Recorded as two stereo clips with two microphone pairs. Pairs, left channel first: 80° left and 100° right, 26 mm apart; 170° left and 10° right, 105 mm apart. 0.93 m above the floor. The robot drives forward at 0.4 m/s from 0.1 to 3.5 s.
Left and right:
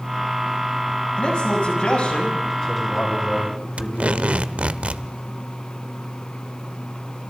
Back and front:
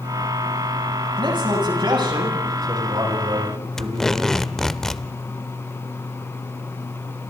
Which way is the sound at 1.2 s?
30° left.